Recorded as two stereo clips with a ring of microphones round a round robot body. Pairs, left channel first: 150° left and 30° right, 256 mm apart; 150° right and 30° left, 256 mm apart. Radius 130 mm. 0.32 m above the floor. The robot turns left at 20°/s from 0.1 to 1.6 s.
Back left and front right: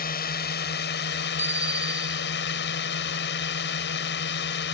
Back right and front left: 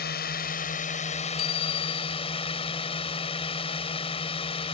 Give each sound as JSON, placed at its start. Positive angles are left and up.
{"t": 0.0, "sound": "a drone", "azimuth_deg": 180}
{"t": 1.4, "sound": "a bicycle bell", "azimuth_deg": -110}